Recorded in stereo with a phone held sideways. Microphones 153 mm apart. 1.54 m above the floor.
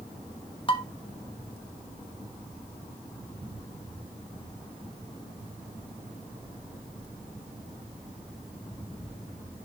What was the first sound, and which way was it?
Dishes clattering, 35° left (ahead or behind).